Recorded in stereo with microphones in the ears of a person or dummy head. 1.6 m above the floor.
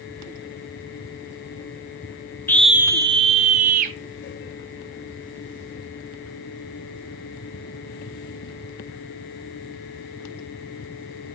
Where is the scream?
10° left (ahead or behind), 0.8 m; by 4.0 s 45° right (ahead or behind), 1.9 m.